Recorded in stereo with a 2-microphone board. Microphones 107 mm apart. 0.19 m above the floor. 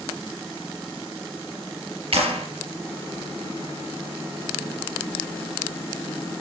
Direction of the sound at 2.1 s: 70° right (ahead or behind).